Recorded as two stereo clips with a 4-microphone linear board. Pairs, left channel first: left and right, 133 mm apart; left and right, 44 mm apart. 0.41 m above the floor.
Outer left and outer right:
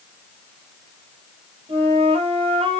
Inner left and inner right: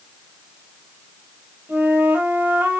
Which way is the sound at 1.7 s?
45° right (ahead or behind).